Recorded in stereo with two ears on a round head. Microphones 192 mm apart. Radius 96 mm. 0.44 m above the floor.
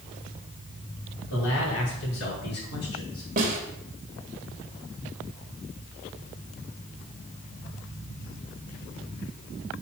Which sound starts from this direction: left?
A man speaking, at 1.3 s.